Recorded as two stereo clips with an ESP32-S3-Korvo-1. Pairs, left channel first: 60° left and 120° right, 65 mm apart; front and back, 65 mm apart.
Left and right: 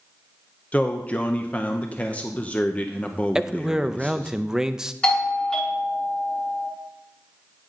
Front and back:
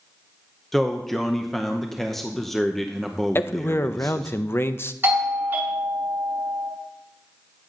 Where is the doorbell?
130° left, 2 m.